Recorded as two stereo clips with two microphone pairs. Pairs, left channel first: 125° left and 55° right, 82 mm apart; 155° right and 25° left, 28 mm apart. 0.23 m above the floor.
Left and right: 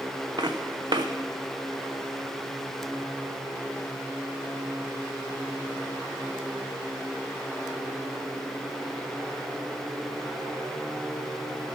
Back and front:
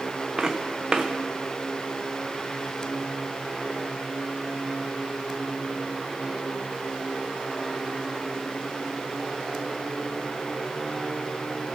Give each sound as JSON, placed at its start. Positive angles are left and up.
{"t": 0.4, "sound": "footsteps", "azimuth_deg": -35, "distance_m": 0.8}